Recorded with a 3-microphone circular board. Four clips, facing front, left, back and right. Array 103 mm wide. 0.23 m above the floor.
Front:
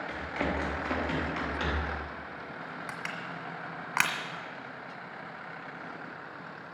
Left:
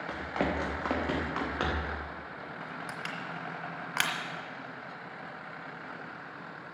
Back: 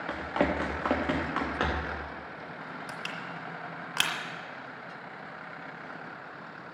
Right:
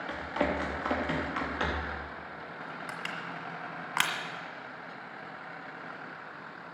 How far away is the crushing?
About 1.4 m.